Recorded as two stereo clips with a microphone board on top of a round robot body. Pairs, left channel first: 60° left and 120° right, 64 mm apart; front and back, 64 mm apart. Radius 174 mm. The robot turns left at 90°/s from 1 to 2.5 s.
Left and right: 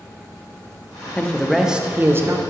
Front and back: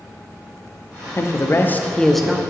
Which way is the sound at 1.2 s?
5° left.